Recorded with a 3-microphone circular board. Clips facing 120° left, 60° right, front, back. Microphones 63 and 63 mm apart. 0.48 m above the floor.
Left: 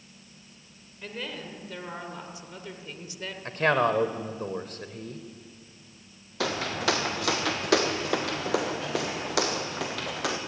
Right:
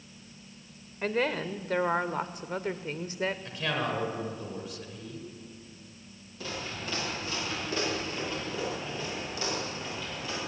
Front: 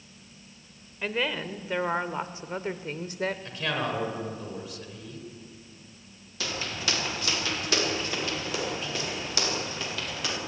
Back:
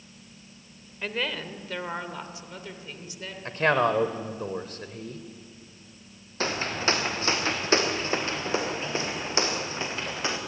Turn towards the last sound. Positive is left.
turn(degrees=120)